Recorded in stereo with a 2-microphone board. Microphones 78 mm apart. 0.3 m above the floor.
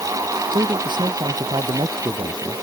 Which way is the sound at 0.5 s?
85° right.